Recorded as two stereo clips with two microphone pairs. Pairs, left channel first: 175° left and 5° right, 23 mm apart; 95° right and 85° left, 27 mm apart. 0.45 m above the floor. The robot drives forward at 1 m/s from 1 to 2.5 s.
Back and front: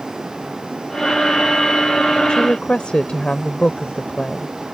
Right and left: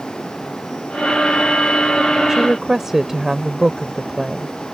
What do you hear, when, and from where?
2.3 s a woman speaking: 145° left; by 4.5 s 150° left